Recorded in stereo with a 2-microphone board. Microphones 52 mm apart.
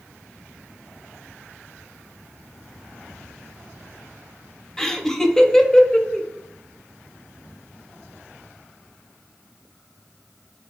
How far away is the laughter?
About 0.9 m.